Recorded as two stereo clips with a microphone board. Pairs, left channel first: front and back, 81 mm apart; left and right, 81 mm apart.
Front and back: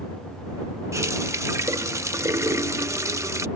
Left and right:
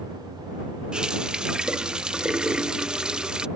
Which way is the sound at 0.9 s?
165° right.